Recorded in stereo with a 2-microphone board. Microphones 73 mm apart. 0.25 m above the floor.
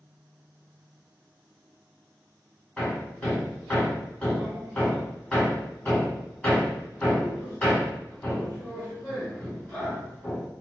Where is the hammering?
15° left (ahead or behind), 1.5 m.